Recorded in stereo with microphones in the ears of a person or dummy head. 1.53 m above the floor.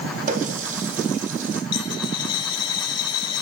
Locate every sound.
0.3 s a running tap: 50° right (ahead or behind), 2 m
1.7 s a dropped coin: 30° left (ahead or behind), 3.5 m